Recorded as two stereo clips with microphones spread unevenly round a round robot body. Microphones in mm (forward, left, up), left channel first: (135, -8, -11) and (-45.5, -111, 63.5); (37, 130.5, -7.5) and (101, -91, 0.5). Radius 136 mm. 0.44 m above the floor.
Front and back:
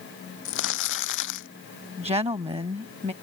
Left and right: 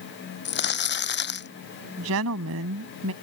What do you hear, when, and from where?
0.5 s crumpling: 70° left
2.0 s a woman speaking: 85° right